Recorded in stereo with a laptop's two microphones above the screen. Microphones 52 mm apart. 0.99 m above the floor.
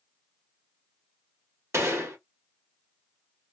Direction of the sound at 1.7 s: 60° right (ahead or behind).